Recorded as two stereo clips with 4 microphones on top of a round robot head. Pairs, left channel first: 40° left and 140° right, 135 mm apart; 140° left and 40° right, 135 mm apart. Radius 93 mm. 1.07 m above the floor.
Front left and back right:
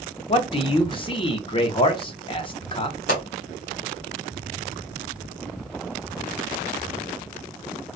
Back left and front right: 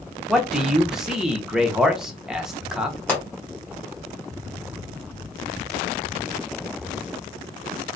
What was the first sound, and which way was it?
A man speaking, 40° left.